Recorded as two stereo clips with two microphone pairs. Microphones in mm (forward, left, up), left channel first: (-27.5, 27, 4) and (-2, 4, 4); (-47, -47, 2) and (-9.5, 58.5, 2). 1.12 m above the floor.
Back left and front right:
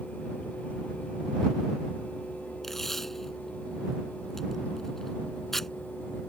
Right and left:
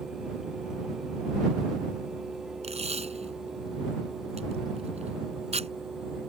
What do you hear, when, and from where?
2.6 s tape being pulled: 60° left